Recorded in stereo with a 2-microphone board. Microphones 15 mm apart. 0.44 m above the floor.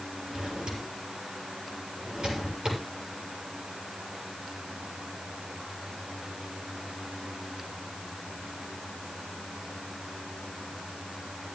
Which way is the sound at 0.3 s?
75° right (ahead or behind).